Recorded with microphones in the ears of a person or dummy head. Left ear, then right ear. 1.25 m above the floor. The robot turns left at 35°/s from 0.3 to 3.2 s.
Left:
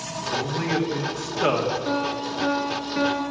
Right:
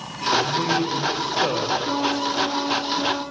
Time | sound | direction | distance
0.3 | a man speaking | 170° right | 3 m
1.9 | a piano | 165° left | 6 m